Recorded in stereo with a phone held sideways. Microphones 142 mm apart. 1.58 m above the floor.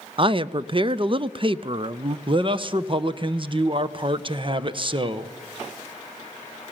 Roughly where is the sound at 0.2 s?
Right.